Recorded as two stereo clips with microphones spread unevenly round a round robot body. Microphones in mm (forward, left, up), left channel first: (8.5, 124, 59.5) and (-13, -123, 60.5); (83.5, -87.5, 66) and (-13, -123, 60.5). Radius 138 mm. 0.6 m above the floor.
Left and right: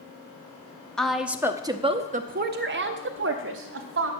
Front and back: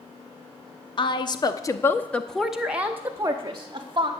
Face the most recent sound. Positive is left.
turn(degrees=-120)